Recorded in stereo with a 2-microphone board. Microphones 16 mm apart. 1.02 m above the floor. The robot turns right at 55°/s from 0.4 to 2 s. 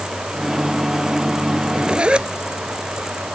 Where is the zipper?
75° right (ahead or behind); by 2.3 s 85° right.